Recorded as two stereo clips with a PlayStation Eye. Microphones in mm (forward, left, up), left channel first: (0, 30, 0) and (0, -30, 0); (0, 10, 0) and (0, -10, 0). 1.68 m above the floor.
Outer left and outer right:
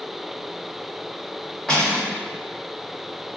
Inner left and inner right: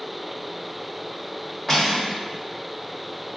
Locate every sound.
1.7 s cutlery clinking: 15° left (ahead or behind), 1.3 m